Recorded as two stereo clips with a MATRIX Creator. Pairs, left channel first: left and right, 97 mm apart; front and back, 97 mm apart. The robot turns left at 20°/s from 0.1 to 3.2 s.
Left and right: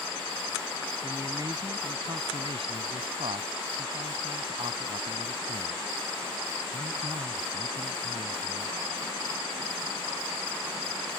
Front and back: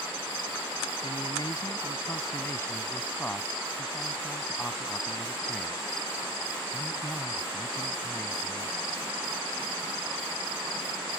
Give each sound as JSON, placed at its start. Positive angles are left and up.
{"t": 1.0, "sound": "a man speaking", "azimuth_deg": -30}